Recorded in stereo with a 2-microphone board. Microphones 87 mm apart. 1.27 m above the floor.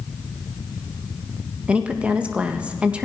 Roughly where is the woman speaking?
Centre.